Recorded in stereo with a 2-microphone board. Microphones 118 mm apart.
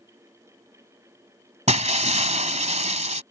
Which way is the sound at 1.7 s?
80° right.